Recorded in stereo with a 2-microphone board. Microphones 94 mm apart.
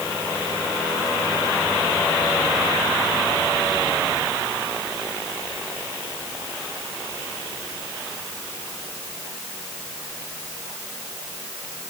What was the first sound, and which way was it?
Only background noise.